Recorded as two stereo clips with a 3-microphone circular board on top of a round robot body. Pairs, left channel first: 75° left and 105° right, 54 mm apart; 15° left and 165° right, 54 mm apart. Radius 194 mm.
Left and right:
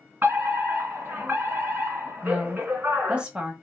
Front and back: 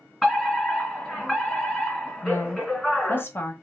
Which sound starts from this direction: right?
A fire alarm, at 0.2 s.